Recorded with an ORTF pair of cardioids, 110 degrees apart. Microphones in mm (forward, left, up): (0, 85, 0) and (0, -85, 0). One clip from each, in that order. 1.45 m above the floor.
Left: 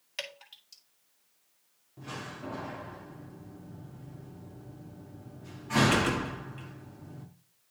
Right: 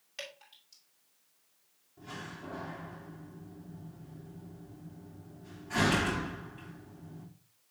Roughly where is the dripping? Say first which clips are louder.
Left 5 dB; ahead left.